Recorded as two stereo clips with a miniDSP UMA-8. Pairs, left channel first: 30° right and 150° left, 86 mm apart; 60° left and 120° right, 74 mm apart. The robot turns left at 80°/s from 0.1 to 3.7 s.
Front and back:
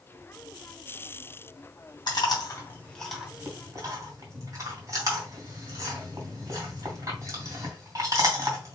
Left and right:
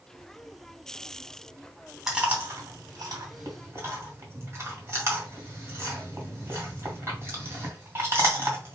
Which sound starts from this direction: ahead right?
Chewing, at 2.1 s.